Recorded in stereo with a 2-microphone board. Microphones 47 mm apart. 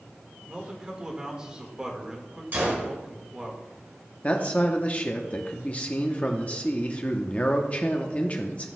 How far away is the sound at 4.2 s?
About 0.7 m.